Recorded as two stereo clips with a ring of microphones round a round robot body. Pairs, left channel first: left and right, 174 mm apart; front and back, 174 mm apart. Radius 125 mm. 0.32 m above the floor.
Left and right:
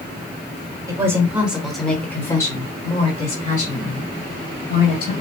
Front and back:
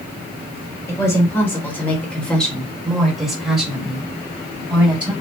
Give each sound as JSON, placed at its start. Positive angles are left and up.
{"t": 0.9, "sound": "a woman speaking", "azimuth_deg": -50, "distance_m": 1.3}